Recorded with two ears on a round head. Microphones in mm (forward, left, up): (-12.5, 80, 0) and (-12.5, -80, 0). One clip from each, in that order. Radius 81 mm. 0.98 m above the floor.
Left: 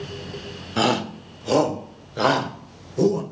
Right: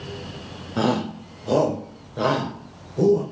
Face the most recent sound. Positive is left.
turn(degrees=50)  # may be behind; listen again after turning